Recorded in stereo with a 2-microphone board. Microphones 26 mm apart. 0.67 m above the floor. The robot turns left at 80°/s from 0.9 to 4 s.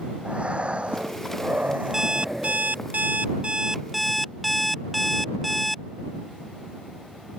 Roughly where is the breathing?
Ahead right.